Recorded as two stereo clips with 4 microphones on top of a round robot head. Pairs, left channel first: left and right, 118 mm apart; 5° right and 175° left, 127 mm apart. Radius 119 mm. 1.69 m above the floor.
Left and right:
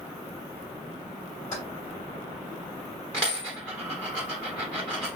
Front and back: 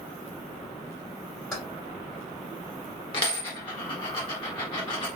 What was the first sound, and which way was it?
Keys jangling, 80° left.